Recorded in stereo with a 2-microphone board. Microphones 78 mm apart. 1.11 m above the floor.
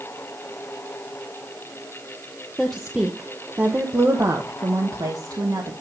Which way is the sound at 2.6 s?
5° left (ahead or behind).